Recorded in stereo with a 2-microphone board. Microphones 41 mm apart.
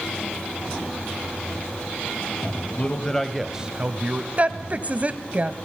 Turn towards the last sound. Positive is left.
turn(degrees=-35)  # may be behind; listen again after turning